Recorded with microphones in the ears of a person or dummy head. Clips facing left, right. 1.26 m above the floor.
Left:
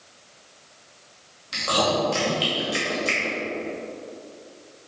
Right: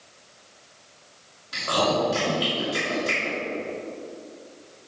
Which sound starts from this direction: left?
Chewing, at 1.5 s.